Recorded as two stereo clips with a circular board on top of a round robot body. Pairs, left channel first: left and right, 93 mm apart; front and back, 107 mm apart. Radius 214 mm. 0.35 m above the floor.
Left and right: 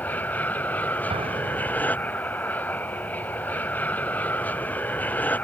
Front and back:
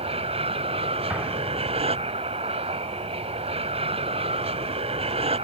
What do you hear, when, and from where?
0.0 s an aircraft: 160° left
1.1 s an explosion: 100° right